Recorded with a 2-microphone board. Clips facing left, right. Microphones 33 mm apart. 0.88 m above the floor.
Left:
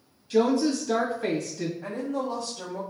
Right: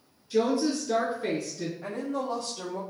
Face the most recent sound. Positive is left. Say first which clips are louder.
# right 1 dB
turn(degrees=-25)  # may be behind; listen again after turning